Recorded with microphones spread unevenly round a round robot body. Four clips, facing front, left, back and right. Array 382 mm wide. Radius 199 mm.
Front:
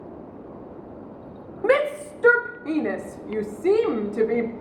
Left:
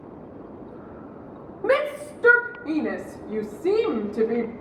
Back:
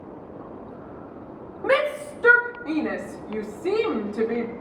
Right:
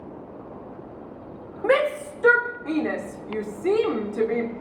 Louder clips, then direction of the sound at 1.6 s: Right 1 dB, front 2 dB; 10° left.